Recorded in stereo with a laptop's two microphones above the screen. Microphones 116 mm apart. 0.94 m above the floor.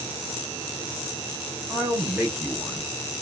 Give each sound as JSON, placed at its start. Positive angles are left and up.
{"t": 1.7, "sound": "a man speaking", "side_deg": -20, "distance_m": 1.1}